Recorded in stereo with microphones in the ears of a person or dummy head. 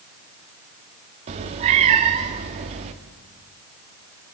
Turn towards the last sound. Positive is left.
turn(degrees=-35)  # may be behind; listen again after turning